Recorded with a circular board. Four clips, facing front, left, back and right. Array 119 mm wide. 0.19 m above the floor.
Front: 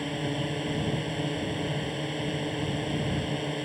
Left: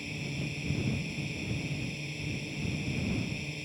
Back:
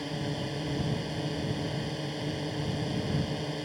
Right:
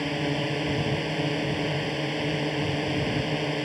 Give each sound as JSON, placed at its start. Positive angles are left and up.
{"t": 0.0, "sound": "a drone", "azimuth_deg": -75}